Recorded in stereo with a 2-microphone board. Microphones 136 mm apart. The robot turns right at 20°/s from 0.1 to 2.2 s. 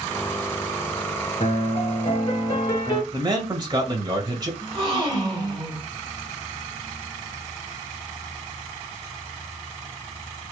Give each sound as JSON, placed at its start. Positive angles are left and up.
{"t": 1.4, "sound": "a piano", "side_deg": 50, "distance_m": 1.1}
{"t": 3.1, "sound": "a man speaking", "side_deg": -30, "distance_m": 1.3}
{"t": 4.6, "sound": "a gasp", "side_deg": -35, "distance_m": 1.7}